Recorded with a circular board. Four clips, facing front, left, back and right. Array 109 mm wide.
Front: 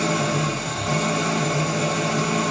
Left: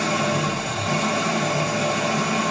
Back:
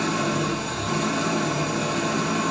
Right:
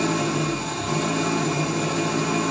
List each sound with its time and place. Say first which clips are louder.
0.0 s an engine running: left 1 dB, front 1 dB; 55° left, 4.5 m